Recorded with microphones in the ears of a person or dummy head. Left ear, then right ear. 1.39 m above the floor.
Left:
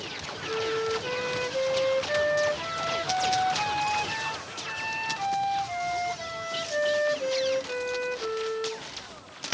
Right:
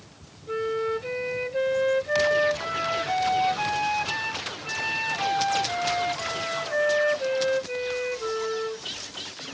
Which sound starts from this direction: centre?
A flute, at 0.5 s.